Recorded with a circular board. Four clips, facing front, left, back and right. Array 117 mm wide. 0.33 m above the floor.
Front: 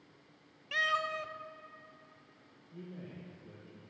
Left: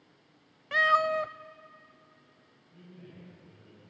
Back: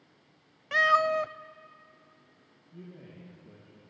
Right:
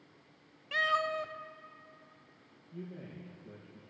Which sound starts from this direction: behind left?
A cat meowing, at 0.7 s.